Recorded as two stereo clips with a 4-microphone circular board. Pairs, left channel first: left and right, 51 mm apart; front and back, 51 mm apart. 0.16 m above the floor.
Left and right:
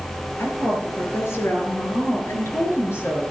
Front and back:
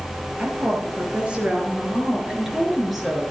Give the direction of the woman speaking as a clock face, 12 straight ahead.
8 o'clock.